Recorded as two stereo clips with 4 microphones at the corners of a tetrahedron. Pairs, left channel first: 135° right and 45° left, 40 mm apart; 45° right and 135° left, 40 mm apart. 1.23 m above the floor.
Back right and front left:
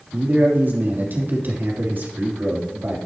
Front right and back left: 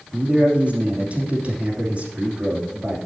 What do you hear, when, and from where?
0.1 s a man speaking: 80° left, 2.5 m